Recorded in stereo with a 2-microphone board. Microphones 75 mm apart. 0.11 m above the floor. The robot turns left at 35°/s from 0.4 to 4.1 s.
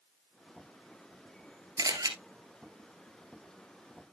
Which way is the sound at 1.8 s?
50° right (ahead or behind).